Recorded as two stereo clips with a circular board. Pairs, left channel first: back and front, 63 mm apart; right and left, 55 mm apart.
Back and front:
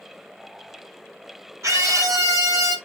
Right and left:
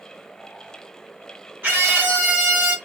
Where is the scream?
40° left, 4.5 m; by 2.8 s 30° left, 4 m.